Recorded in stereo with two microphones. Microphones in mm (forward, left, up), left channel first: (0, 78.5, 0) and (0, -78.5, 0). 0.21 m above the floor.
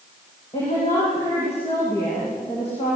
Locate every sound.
0.5 s a woman speaking: 35° left (ahead or behind), 8.5 m